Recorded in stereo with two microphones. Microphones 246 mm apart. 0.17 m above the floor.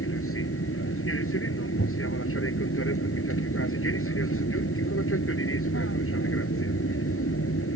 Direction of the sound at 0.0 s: 60° left (ahead or behind).